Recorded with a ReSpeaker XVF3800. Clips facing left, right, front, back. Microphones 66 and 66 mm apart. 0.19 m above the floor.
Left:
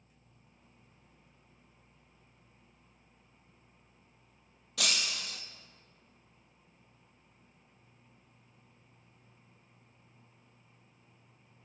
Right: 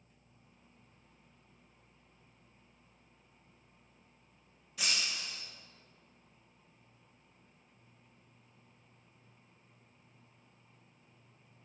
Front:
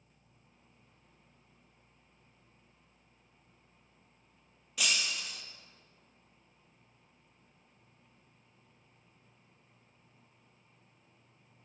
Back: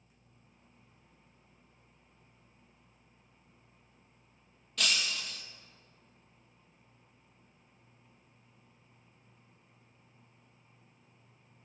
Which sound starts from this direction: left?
Breaking glass, at 4.8 s.